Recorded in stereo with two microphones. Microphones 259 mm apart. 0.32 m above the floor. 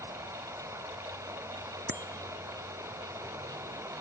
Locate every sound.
0.0 s running water: 10° right (ahead or behind)
1.9 s a bicycle bell: 45° right (ahead or behind)